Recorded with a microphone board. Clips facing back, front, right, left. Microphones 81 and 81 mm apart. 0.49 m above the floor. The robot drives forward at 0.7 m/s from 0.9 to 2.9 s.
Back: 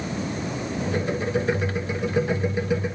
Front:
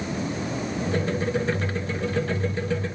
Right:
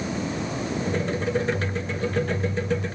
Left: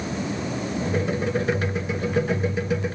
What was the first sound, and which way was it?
Only background noise.